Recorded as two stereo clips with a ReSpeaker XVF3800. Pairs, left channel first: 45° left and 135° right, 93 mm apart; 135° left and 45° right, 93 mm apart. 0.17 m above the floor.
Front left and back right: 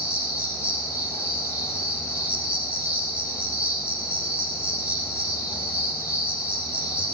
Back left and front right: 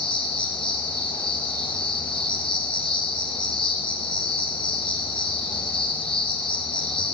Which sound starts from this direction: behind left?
An insect, at 0.0 s.